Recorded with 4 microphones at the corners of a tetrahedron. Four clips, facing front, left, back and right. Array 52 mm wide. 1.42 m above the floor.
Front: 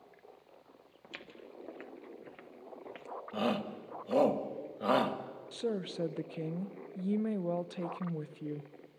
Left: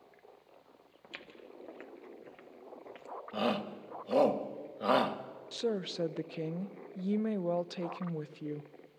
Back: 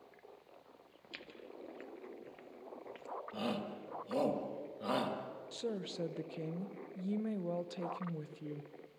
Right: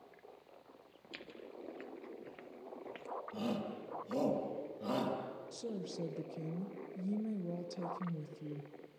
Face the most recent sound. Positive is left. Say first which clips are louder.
# left 11 dB, front 5 dB
turn(degrees=70)